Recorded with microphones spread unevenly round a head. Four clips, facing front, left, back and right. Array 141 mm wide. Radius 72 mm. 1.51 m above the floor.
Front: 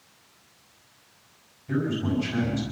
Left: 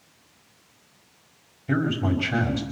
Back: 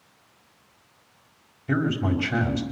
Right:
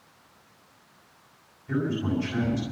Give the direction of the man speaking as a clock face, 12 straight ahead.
8 o'clock.